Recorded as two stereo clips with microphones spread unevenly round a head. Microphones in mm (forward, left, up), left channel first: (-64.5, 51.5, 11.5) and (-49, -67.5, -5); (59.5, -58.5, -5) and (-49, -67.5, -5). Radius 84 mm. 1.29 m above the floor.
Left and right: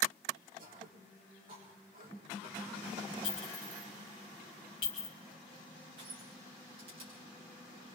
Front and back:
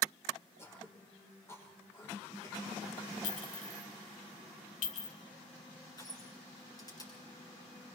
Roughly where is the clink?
Ahead left.